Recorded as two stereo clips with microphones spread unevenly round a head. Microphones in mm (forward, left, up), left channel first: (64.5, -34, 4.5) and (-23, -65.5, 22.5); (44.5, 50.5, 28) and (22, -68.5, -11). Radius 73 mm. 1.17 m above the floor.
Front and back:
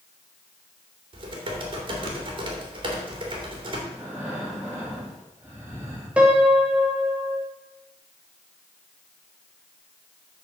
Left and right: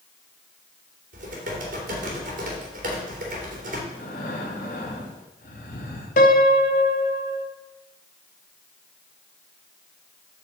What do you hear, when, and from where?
1.1 s typing on a keyboard: 130° right, 3 m
3.9 s breathing: 120° left, 2.5 m
6.2 s a piano: 115° left, 0.9 m